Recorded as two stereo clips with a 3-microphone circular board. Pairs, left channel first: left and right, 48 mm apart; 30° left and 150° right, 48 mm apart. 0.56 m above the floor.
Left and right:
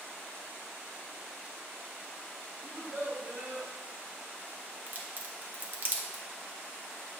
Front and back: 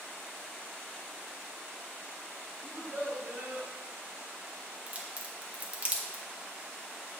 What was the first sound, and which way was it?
A child speaking, 110° right.